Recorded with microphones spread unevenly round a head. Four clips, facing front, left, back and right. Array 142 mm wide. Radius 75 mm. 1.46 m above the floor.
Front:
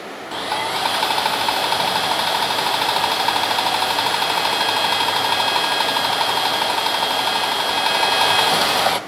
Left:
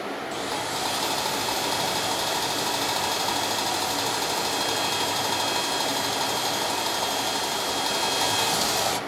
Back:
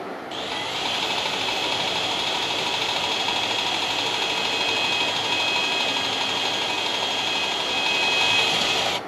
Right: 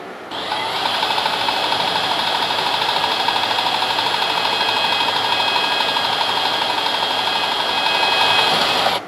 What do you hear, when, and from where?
0.3 s sawing: 45° right, 0.7 m